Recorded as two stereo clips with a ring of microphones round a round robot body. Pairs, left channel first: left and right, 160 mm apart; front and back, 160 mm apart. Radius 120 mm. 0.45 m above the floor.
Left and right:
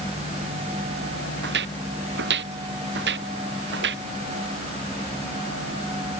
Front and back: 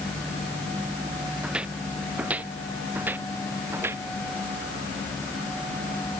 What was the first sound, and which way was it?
Footsteps, 95° right.